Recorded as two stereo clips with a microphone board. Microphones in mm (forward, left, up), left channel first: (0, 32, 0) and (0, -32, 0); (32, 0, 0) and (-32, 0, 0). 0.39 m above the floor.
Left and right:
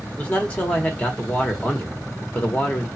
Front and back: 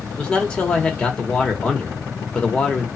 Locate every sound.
0.2 s a man speaking: 55° left, 1.0 m